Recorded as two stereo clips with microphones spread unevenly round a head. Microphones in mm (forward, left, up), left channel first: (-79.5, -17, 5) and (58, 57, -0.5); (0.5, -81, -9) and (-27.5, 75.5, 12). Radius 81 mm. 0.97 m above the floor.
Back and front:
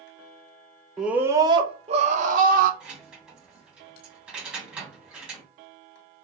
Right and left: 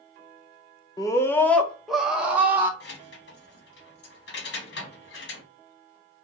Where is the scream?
55° right, 0.7 m; by 2.7 s 20° left, 1.1 m.